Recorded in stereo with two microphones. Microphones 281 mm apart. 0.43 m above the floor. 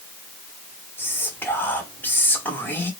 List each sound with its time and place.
1.0 s whispering: 5° left (ahead or behind), 0.9 m